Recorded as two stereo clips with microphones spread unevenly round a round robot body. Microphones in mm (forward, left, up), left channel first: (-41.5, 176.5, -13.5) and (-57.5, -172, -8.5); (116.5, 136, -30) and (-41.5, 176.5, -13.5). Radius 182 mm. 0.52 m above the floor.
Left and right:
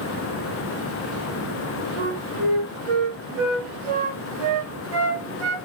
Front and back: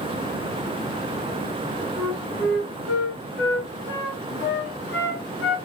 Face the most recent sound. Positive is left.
turn(degrees=-65)